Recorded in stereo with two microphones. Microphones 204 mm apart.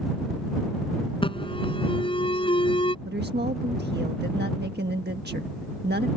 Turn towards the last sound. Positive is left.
turn(degrees=-55)  # may be behind; listen again after turning